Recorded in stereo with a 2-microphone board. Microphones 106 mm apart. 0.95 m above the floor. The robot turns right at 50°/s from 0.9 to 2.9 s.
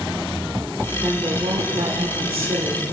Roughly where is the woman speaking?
Behind right.